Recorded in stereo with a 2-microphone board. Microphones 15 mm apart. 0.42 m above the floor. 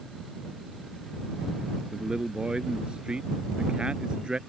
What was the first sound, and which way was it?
A man speaking, 70° right (ahead or behind).